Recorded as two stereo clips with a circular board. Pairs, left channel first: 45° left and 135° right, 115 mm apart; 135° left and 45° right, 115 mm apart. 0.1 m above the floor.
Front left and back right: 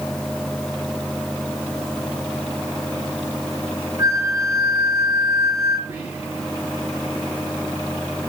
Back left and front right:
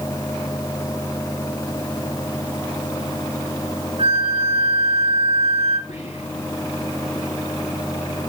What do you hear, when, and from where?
4.0 s a flute: 80° right, 5 m
5.9 s whispering: 145° left, 7 m